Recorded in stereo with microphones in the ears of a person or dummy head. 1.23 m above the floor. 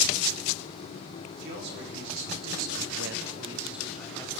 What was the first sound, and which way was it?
A man speaking, 60° right (ahead or behind).